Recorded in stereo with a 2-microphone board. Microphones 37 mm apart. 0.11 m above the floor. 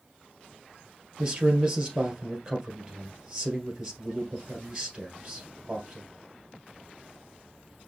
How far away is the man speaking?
About 2.0 m.